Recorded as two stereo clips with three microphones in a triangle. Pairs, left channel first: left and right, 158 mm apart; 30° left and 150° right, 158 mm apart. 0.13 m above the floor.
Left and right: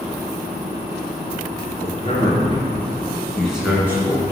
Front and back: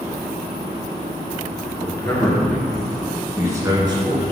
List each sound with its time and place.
1.8 s a man speaking: 90° left, 1.5 m; by 4.3 s 135° right, 1.4 m